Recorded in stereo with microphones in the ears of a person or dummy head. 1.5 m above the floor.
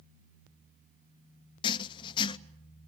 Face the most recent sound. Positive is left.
turn(degrees=30)  # may be behind; listen again after turning